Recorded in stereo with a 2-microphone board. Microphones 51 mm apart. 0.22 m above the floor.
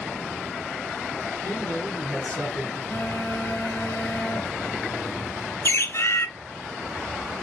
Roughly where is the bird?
Left.